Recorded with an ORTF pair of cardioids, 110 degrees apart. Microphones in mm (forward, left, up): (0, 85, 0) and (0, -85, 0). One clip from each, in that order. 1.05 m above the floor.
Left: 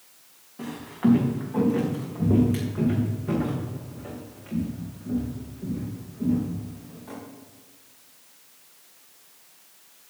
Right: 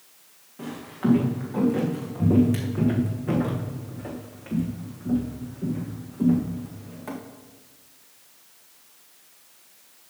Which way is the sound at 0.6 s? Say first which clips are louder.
Left 3 dB; 5° left.